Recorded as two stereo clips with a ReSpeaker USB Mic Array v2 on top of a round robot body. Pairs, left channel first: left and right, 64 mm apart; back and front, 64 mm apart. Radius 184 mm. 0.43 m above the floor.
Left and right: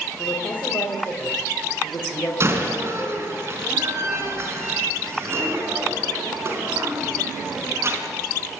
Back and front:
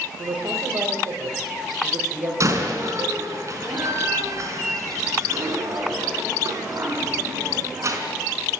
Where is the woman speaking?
30° left, 3.5 m.